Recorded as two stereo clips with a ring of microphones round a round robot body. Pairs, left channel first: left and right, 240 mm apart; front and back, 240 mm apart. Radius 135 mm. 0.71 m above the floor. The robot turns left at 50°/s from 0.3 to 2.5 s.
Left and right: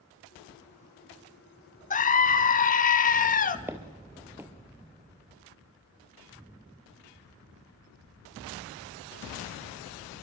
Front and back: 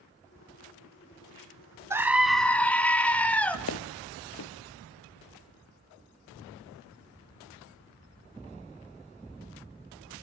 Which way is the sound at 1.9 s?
110° left.